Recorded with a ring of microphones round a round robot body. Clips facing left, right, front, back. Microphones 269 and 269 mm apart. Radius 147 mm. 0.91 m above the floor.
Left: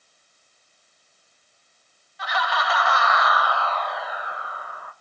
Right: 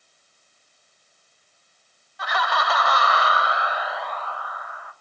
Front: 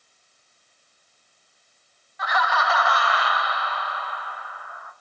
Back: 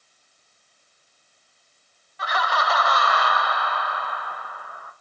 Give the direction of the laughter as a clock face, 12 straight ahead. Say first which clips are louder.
Right 1 dB, front 1 dB; 4 o'clock.